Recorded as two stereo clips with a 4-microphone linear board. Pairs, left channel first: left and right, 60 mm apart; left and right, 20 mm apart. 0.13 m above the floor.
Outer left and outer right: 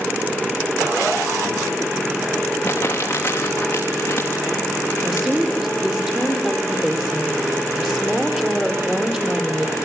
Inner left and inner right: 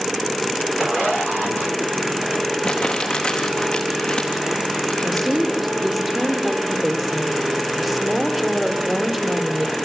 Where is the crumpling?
35° left (ahead or behind), 4 m.